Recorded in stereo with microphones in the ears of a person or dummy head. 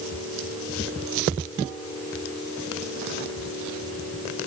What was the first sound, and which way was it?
Only background noise.